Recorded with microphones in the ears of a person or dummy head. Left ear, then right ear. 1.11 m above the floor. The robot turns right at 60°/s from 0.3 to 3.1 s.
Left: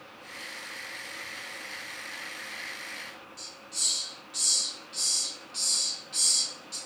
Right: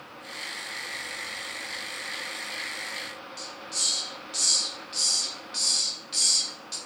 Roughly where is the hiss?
Right.